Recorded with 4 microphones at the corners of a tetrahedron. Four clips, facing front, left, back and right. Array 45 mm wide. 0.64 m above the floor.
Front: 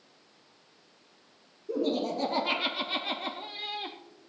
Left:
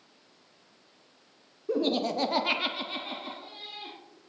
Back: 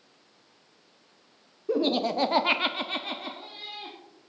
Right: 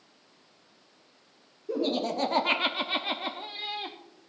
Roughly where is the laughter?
Behind.